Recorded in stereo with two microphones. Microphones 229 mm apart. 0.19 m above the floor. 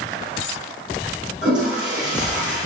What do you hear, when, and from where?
1.4 s a toilet flushing: 5° right (ahead or behind), 2.5 m